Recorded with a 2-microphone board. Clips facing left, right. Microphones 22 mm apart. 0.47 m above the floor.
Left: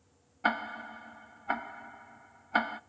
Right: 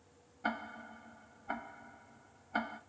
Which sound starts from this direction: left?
Ticking, at 0.4 s.